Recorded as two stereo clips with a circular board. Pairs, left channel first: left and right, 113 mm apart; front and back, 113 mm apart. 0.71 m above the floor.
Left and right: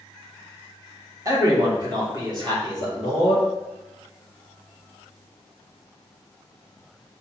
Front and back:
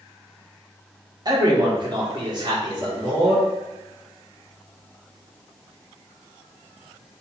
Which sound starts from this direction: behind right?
A man speaking, at 1.2 s.